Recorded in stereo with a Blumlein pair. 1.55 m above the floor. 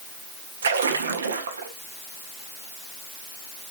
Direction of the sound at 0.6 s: 65° right.